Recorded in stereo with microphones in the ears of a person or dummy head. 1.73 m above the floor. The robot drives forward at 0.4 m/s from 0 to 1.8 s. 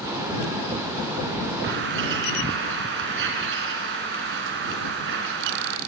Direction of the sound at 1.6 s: 65° right (ahead or behind).